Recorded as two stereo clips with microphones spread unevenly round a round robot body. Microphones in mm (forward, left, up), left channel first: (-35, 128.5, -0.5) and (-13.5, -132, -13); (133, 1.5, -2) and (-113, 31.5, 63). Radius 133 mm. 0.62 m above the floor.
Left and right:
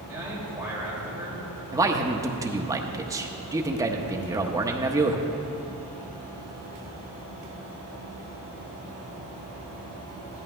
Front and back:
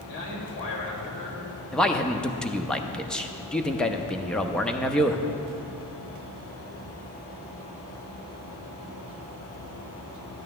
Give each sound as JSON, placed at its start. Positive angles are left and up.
{"t": 0.1, "sound": "a man speaking", "azimuth_deg": -5, "distance_m": 3.5}
{"t": 1.7, "sound": "a man speaking", "azimuth_deg": -40, "distance_m": 0.6}